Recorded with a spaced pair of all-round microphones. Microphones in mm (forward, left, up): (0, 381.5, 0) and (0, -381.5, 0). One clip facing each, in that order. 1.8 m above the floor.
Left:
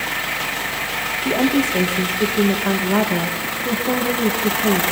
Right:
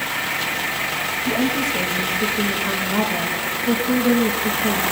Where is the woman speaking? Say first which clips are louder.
Left 4 dB; 70° left (ahead or behind), 3 m.